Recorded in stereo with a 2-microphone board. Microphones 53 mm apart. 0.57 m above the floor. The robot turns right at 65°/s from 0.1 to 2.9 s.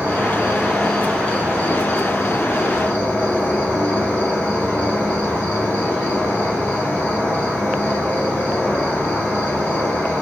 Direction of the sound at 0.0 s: 45° right.